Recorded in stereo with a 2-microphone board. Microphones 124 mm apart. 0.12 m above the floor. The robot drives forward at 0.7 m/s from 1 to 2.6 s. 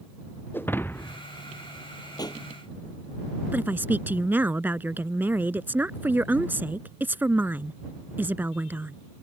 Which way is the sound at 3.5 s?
15° right (ahead or behind).